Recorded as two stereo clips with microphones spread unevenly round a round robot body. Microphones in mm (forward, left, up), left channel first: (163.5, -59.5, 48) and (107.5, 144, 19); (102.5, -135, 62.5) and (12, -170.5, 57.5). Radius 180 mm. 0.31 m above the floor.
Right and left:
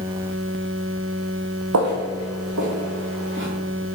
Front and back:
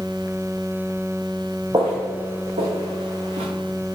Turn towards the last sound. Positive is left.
turn(degrees=170)